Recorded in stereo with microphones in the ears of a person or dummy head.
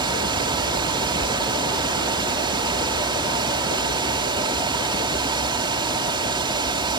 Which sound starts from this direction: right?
A fan, at 0.0 s.